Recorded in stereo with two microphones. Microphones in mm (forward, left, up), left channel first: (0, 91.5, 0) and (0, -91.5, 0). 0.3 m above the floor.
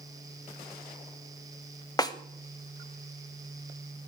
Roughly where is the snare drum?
Left.